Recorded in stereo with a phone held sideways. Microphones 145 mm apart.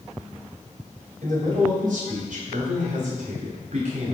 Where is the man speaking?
70° right (ahead or behind), 5 m; by 4.1 s 55° right (ahead or behind), 3 m.